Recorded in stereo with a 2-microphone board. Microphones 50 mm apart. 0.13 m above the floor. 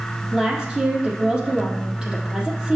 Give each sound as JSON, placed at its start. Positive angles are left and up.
{"t": 0.3, "sound": "a woman speaking", "side_deg": -15, "distance_m": 3.5}